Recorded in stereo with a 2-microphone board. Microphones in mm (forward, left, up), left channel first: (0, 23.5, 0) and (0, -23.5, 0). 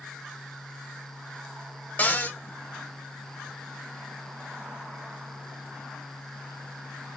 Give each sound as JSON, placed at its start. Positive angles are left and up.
{"t": 2.0, "sound": "a cupboard door", "side_deg": 35, "distance_m": 0.6}